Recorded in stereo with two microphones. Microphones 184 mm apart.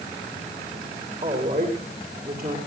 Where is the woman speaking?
45° right (ahead or behind), 9.5 m; by 2.6 s 50° right (ahead or behind), 10 m.